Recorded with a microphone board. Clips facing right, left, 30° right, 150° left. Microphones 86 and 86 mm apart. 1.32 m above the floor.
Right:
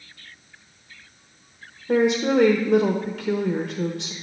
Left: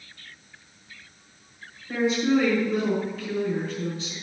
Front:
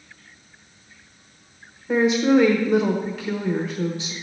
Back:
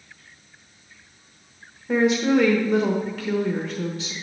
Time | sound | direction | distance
1.9 | a woman speaking | 115° right | 1.0 m